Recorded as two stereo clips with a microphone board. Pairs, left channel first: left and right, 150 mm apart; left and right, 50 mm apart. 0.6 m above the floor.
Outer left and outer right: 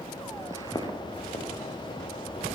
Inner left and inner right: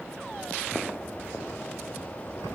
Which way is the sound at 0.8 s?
30° left (ahead or behind).